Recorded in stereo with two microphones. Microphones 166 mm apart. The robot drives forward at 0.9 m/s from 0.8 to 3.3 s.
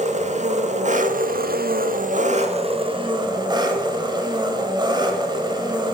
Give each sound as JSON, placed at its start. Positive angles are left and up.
{"t": 0.0, "sound": "an engine running", "side_deg": -45, "distance_m": 1.1}